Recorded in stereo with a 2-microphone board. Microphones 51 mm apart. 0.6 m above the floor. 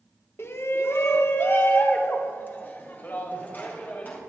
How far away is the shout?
About 1.0 m.